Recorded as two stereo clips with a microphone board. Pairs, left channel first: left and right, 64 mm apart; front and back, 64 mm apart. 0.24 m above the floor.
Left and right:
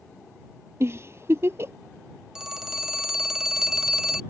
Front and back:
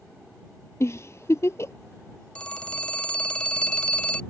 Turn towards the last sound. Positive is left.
turn(degrees=-30)